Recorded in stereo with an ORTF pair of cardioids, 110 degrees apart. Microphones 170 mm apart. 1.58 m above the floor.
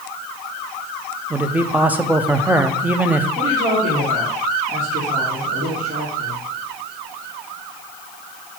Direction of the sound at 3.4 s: 60° right.